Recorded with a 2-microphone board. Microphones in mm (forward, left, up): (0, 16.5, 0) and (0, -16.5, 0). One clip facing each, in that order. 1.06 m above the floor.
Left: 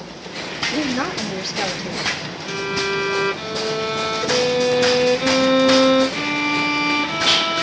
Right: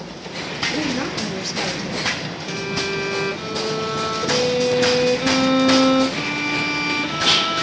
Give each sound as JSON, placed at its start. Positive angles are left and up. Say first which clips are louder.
{"t": 0.7, "sound": "a woman speaking", "louder": "left 3 dB", "side_deg": 30, "distance_m": 2.5}
{"t": 2.5, "sound": "a violin", "louder": "left 3 dB", "side_deg": 15, "distance_m": 1.1}